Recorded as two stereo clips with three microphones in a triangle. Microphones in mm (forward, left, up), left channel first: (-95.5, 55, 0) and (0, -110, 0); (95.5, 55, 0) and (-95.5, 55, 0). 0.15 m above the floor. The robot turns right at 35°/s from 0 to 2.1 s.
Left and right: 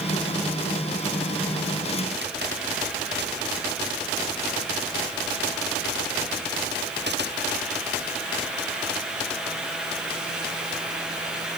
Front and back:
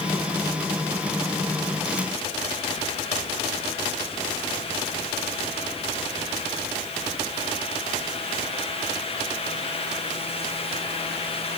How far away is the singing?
No singing in this recording.